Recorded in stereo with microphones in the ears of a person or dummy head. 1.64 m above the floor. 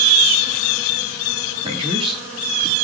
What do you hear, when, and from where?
1.6 s a man speaking: 25° right (ahead or behind), 3.5 m